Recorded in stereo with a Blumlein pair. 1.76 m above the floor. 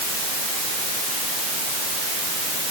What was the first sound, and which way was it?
Only background noise.